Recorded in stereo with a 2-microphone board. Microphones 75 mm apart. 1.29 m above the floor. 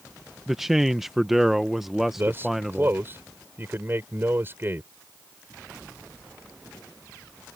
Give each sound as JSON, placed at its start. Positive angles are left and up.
{"t": 0.5, "sound": "a man speaking", "side_deg": -5}
{"t": 2.2, "sound": "a man speaking", "side_deg": -30}